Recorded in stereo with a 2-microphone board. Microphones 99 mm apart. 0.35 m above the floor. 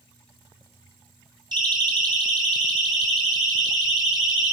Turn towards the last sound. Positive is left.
turn(degrees=-45)  # may be behind; listen again after turning